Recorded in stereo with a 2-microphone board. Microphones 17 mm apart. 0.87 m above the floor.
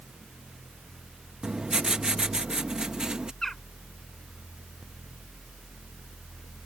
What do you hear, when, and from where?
1.4 s writing: 50° right (ahead or behind)
3.4 s a bird: 20° left (ahead or behind)